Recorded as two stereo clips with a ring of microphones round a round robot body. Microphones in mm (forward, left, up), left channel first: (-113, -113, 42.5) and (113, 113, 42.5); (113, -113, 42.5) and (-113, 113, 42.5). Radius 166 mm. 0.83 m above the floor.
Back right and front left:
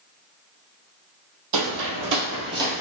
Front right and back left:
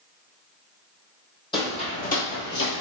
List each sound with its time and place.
1.5 s footsteps: 30° left, 1.3 m; by 2.8 s 45° right, 0.9 m